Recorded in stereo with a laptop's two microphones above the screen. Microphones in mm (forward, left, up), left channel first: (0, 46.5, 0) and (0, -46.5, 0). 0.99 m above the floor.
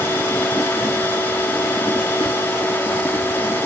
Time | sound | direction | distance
0.0 | a machine running | 20° left (ahead or behind) | 1.8 m